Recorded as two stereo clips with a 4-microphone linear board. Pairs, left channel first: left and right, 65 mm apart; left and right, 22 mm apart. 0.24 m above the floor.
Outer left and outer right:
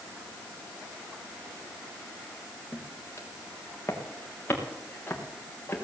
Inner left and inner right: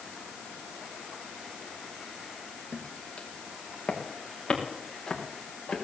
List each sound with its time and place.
2.7 s footsteps: 45° left (ahead or behind), 3 m; by 5.8 s 30° left (ahead or behind), 5 m